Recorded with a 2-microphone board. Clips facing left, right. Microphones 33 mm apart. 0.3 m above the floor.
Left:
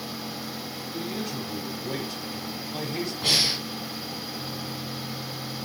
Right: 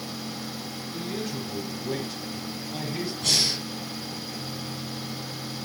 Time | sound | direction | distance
0.9 | a man speaking | 5° right (ahead or behind) | 1.6 m
3.2 | breathing | 20° left (ahead or behind) | 0.8 m